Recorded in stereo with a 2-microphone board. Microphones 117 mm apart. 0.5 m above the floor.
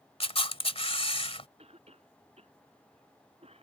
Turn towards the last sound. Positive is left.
turn(degrees=-60)  # may be behind; listen again after turning